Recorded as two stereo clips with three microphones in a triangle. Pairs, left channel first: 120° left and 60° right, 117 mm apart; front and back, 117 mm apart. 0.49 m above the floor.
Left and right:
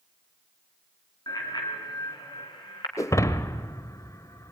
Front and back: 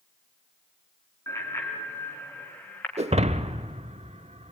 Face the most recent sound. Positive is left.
turn(degrees=180)